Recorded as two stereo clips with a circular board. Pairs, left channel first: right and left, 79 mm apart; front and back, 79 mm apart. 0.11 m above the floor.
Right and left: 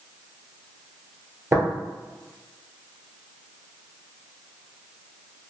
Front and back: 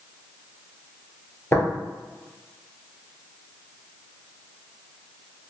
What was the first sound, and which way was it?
Tapping, 50° left.